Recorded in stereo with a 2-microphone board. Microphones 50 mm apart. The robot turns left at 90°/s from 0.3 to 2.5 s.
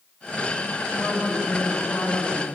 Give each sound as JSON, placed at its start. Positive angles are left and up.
{"t": 1.0, "sound": "a woman speaking", "azimuth_deg": -175, "distance_m": 1.8}